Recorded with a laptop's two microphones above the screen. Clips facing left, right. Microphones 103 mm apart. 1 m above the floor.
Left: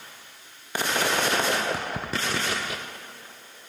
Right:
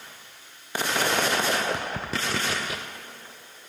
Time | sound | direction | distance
1.7 | keys jangling | 10° left (ahead or behind) | ?